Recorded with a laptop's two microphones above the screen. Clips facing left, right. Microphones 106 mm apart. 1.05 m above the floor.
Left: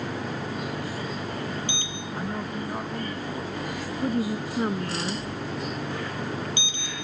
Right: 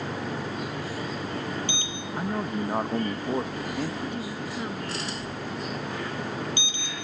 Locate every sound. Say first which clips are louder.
2.1 s a man speaking: right 3 dB; 20° right (ahead or behind); by 3.9 s 65° right (ahead or behind)
4.0 s a woman speaking: left 6 dB; 40° left (ahead or behind)